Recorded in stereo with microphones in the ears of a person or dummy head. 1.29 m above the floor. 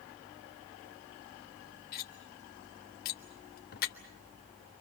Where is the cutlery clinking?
45° left (ahead or behind), 1.3 m.